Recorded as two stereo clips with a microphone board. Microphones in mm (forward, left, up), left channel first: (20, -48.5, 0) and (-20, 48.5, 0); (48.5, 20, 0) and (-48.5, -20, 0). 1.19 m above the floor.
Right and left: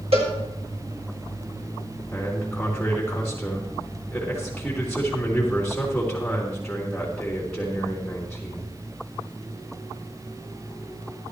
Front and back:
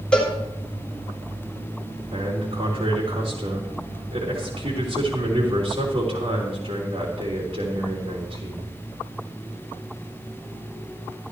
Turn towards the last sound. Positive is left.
turn(degrees=-150)